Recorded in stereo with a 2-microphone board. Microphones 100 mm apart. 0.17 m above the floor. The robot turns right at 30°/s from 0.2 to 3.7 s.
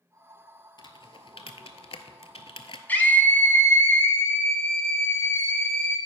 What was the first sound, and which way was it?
Typing on a keyboard, 55° left (ahead or behind).